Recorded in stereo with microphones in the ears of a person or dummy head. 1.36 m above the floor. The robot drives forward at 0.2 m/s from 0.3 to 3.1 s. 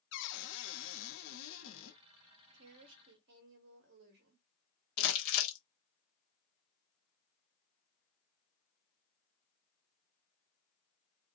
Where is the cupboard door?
60° left (ahead or behind), 0.7 m.